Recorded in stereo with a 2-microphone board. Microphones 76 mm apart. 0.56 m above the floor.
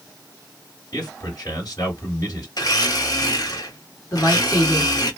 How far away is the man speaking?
About 1.6 m.